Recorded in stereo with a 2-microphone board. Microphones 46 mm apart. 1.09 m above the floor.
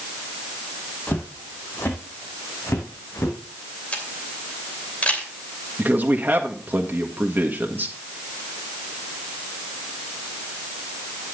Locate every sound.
1.1 s footsteps: 40° left (ahead or behind), 2.5 m; by 3.4 s 65° left (ahead or behind), 4 m
3.9 s a camera shutter: 30° left (ahead or behind), 2.5 m
5.8 s a man speaking: 40° right (ahead or behind), 1.3 m